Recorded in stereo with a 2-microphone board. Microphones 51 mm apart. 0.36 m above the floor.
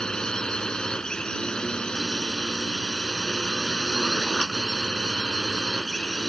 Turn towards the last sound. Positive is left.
turn(degrees=15)  # may be behind; listen again after turning